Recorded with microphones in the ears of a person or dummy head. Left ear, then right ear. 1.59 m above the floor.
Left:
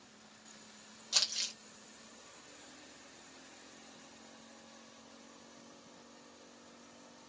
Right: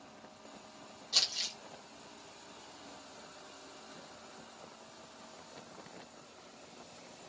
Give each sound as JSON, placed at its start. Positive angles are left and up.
{"t": 1.1, "sound": "crumpling", "side_deg": 60, "distance_m": 1.0}